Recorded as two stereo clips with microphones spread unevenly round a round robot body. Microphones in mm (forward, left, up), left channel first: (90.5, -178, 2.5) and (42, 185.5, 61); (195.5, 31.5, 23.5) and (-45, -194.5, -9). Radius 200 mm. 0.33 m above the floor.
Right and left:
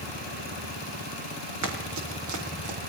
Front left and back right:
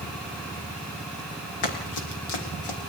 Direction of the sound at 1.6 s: 50° left.